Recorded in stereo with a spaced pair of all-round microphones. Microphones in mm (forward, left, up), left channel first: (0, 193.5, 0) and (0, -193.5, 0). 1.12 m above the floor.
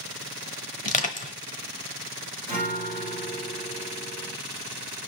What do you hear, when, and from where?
0.8 s crushing: 20° left (ahead or behind), 1.0 m
2.5 s a guitar: 25° right (ahead or behind), 3.5 m